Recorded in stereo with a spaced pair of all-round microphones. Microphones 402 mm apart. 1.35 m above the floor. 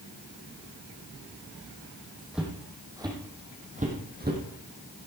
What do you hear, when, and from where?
2.3 s footsteps: centre (ahead or behind), 3.5 m; by 4.4 s 25° right (ahead or behind), 3.5 m